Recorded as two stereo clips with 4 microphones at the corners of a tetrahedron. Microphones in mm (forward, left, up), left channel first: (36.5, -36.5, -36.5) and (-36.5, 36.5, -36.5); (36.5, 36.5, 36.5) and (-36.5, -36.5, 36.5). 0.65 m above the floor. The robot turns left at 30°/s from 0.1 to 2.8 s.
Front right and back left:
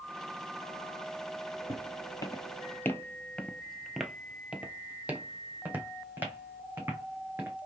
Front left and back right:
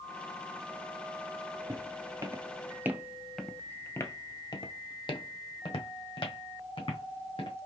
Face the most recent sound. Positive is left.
turn(degrees=65)